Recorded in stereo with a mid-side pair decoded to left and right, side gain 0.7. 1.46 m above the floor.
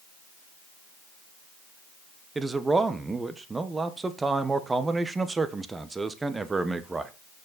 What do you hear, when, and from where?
2.4 s a man speaking: 15° right, 1.1 m